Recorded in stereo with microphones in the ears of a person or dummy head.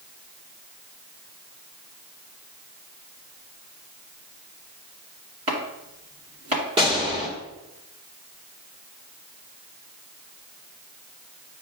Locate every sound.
5.5 s chopping: 30° right (ahead or behind), 2.5 m
6.8 s a gunshot: 25° right (ahead or behind), 2.0 m